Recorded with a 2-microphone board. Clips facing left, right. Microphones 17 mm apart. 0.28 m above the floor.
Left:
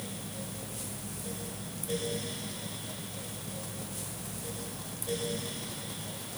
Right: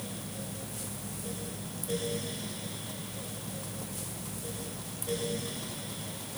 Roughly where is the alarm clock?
No alarm clock in this recording.